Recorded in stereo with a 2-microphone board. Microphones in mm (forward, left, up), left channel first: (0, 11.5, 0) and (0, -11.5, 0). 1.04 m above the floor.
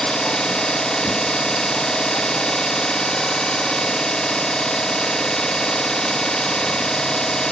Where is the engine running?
35° left (ahead or behind), 0.8 m.